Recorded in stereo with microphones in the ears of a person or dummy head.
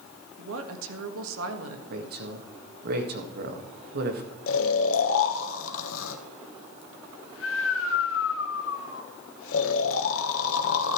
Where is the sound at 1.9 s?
55° right (ahead or behind), 1.5 m.